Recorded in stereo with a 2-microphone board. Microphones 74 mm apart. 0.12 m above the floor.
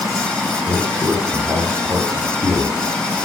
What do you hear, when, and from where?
0.7 s a man speaking: 75° right (ahead or behind), 4 m